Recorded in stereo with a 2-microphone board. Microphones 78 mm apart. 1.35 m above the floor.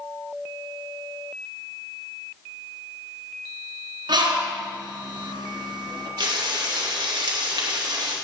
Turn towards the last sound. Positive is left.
turn(degrees=-75)  # may be behind; listen again after turning